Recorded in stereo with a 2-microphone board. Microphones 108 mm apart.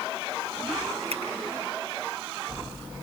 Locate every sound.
1.1 s a finger snap: 60° right (ahead or behind), 8 m